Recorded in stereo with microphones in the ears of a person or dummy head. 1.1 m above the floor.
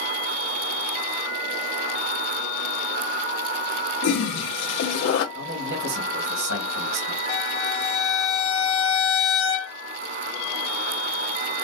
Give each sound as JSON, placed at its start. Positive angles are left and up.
{"t": 4.0, "sound": "a toilet flushing", "side_deg": 80, "distance_m": 1.2}
{"t": 5.3, "sound": "a man speaking", "side_deg": -65, "distance_m": 2.5}
{"t": 7.3, "sound": "a violin", "side_deg": 70, "distance_m": 1.5}